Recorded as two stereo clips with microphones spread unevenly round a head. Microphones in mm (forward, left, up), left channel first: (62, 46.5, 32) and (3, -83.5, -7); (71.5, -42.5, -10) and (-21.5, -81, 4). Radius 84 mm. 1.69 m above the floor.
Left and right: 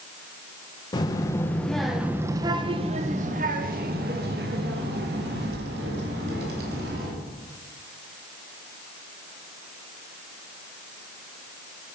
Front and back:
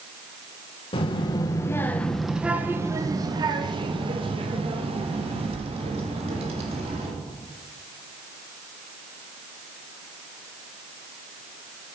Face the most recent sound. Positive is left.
turn(degrees=-150)